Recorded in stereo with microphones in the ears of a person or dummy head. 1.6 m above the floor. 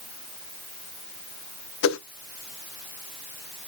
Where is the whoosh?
75° left (ahead or behind), 0.8 m.